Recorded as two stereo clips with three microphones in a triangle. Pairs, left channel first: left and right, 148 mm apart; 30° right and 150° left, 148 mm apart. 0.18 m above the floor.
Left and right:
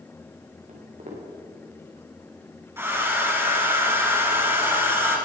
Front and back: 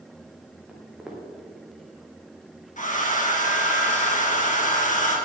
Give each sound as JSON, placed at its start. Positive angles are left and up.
{"t": 0.7, "sound": "footsteps", "azimuth_deg": -125, "distance_m": 4.0}
{"t": 2.8, "sound": "a hair dryer", "azimuth_deg": -20, "distance_m": 2.5}